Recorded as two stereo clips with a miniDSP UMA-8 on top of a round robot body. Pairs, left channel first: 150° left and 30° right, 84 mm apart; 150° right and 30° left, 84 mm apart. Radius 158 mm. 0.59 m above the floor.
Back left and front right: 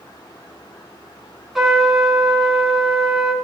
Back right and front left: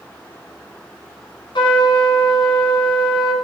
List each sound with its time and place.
1.6 s a trumpet: 115° right, 2.5 m